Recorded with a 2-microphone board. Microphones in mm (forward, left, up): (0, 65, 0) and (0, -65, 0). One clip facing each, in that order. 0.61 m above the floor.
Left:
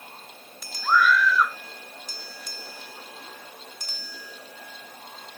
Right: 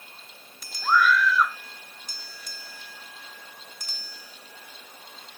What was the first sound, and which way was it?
A scream, 5° right (ahead or behind).